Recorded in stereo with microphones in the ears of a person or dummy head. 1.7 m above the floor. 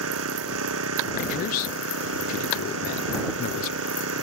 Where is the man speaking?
55° left (ahead or behind).